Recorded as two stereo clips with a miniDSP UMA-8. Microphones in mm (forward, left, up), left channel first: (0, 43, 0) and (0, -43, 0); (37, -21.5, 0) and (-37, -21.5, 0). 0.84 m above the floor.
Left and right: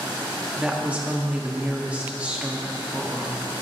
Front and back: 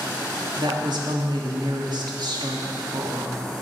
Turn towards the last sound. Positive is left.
turn(degrees=-165)